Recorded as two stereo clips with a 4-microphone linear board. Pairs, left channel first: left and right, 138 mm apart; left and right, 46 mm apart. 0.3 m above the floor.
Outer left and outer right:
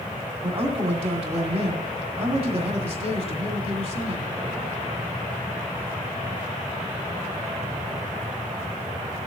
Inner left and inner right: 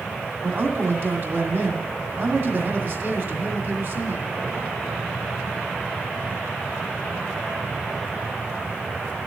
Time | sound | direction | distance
0.4 | a man speaking | 50° right (ahead or behind) | 1.8 m